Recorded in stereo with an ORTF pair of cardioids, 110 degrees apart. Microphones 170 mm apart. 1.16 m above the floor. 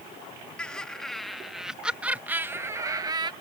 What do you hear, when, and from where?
0.6 s laughter: 5° left; by 3.3 s 30° right